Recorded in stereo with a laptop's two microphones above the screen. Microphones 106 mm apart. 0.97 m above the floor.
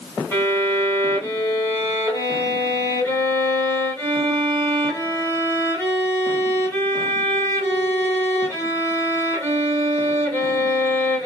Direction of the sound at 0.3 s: 25° left (ahead or behind).